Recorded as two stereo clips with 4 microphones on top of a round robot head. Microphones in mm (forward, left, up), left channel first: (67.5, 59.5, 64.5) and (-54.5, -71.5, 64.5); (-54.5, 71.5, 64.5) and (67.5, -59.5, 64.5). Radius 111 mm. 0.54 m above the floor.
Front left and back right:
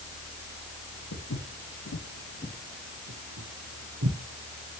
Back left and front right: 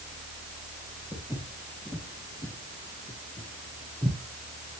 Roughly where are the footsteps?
Ahead left.